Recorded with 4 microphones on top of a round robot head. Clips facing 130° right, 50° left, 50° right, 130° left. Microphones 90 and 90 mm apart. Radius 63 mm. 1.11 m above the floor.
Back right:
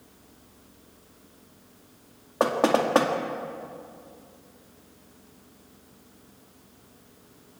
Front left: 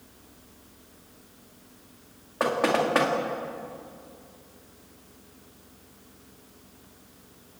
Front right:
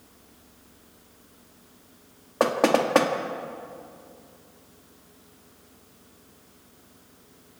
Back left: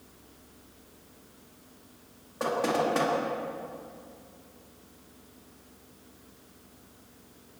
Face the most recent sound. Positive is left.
turn(degrees=-70)